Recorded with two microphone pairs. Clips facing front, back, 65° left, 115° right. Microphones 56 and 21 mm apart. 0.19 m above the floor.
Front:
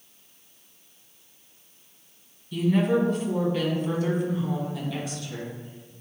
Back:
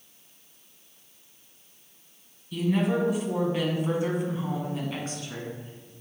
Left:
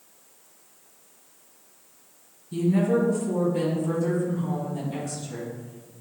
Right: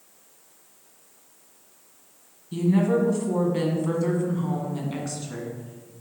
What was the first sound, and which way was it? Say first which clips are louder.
A woman speaking: front 3 dB, right 1 dB; 85° right.